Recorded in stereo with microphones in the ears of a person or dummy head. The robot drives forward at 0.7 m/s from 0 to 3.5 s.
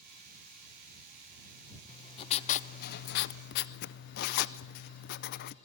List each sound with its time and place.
1.9 s writing: 25° left (ahead or behind), 1.0 m; by 5.5 s 55° left (ahead or behind), 0.6 m